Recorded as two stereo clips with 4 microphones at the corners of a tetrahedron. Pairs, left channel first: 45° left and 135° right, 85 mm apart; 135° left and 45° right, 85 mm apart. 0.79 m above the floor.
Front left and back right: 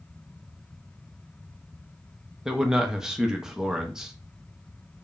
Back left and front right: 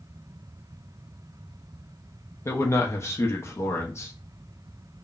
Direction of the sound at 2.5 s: 145° left.